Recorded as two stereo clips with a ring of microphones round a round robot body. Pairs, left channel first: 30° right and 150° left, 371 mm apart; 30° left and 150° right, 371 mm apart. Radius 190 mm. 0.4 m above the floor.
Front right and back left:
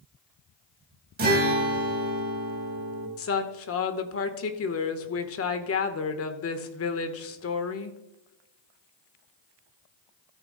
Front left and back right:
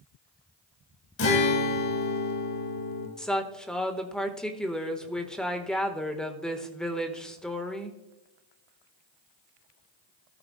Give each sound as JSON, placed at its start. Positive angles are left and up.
{"t": 1.2, "sound": "a guitar", "azimuth_deg": 85, "distance_m": 2.0}
{"t": 3.2, "sound": "a woman speaking", "azimuth_deg": -55, "distance_m": 1.1}